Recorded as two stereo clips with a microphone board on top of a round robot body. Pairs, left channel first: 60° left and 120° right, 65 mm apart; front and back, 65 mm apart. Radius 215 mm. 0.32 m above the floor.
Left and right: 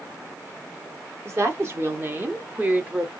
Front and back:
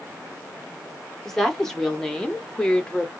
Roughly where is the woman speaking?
Right.